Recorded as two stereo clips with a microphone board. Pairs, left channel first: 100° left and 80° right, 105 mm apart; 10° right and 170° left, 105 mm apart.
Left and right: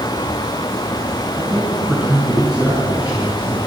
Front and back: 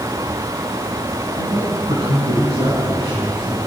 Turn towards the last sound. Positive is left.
turn(degrees=-155)